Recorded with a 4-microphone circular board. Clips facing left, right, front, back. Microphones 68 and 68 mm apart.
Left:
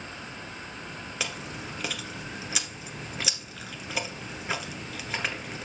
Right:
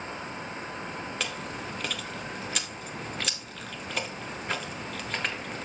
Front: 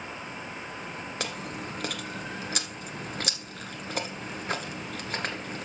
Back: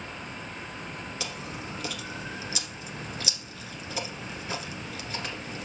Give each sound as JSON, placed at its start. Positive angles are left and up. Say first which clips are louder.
{"t": 1.2, "sound": "chewing", "louder": "right 1 dB, front 4 dB", "azimuth_deg": 5, "distance_m": 1.1}